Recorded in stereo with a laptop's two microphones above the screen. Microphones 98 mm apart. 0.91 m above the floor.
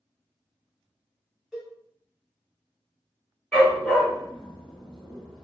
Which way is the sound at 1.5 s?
5° right (ahead or behind).